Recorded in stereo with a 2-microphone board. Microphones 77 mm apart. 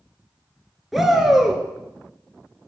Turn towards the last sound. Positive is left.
turn(degrees=-5)  # may be behind; listen again after turning